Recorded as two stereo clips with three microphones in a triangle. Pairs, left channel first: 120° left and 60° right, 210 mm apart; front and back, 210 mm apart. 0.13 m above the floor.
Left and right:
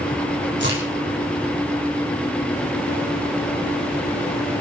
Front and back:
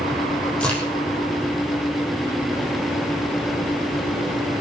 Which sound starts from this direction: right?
A crack, at 0.6 s.